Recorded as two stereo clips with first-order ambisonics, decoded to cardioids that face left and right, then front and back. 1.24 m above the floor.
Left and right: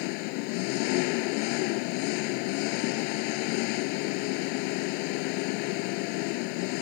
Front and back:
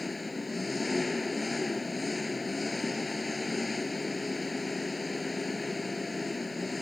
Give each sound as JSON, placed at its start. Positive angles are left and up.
{"t": 0.0, "sound": "an engine running", "azimuth_deg": 80}